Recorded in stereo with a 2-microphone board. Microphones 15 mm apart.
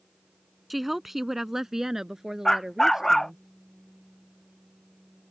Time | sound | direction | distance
0.7 | a woman speaking | 10° right (ahead or behind) | ?
2.5 | a dog barking | 25° left (ahead or behind) | ?